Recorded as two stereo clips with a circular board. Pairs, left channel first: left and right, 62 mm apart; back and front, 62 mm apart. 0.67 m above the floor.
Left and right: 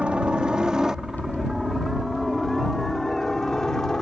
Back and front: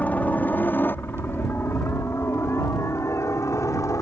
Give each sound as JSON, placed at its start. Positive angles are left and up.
{"t": 0.0, "sound": "a helicopter", "azimuth_deg": -145}